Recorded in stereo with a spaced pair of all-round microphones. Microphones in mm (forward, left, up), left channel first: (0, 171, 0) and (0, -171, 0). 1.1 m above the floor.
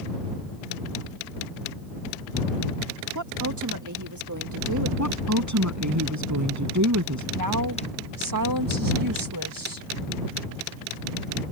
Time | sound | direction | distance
3.1 | a woman speaking | 60° right (ahead or behind) | ?
5.0 | a woman speaking | 55° right (ahead or behind) | ?
7.3 | a woman speaking | 70° right (ahead or behind) | ?